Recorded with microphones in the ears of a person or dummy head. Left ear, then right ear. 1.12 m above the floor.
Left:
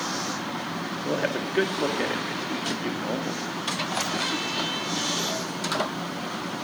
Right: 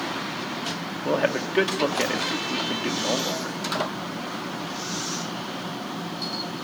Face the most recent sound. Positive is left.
turn(degrees=-20)  # may be behind; listen again after turning